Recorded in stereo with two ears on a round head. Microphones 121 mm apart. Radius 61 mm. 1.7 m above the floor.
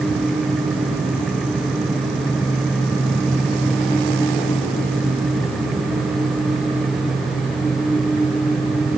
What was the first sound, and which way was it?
Only background noise.